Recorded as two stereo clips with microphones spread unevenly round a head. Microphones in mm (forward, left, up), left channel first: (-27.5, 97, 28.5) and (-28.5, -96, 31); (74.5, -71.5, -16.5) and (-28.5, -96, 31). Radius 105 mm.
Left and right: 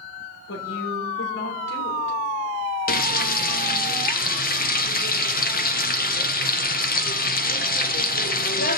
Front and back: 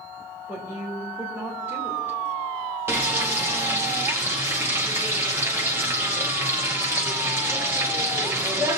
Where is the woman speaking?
110° left, 2.5 m.